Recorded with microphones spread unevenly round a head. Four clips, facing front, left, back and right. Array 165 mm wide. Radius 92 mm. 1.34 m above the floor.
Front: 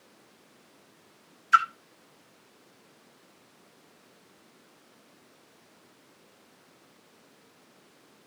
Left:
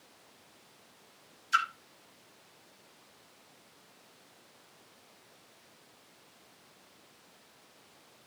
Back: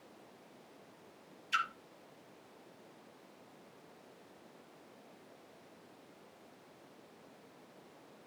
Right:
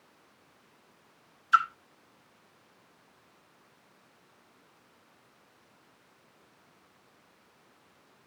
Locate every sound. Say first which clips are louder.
1.5 s a splash: right 5 dB, front 14 dB; 30° right, 1.3 m